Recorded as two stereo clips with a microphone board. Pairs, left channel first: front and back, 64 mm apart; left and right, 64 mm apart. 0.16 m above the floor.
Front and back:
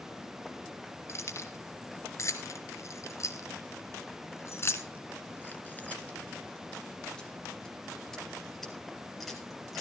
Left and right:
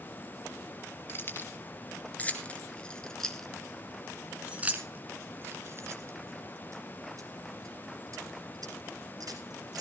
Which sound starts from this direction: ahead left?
Keys jangling, at 1.1 s.